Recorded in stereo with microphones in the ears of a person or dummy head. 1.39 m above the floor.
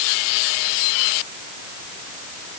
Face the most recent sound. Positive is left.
No sound to turn to.